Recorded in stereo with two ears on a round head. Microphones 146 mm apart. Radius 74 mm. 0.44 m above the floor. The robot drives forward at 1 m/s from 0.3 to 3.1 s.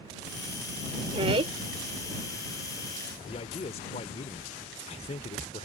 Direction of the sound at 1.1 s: 35° right (ahead or behind).